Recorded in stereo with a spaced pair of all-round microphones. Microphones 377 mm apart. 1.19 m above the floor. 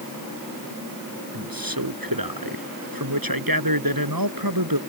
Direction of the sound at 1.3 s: 65° right (ahead or behind).